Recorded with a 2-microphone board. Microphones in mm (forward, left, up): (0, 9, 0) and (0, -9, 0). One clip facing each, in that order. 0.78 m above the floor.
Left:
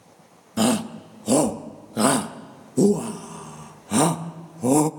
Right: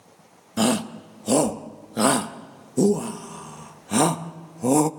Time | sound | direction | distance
0.6 | a shout | 5° right (ahead or behind) | 0.7 m